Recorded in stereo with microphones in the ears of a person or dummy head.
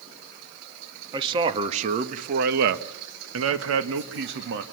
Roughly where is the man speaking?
Right.